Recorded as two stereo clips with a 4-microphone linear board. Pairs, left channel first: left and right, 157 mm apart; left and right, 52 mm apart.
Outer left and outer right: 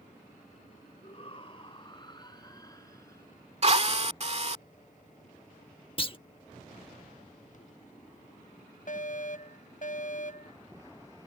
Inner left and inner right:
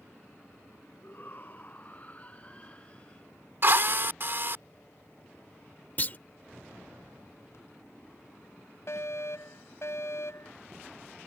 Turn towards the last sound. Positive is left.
turn(degrees=65)  # may be behind; listen again after turning